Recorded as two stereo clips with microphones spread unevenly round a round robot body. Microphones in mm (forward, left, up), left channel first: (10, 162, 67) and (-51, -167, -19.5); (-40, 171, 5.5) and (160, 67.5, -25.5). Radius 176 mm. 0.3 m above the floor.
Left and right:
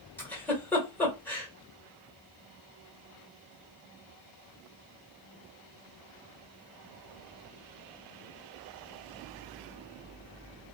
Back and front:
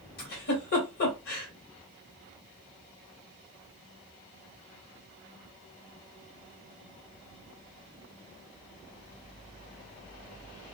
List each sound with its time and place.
0.2 s a giggle: straight behind, 1.3 m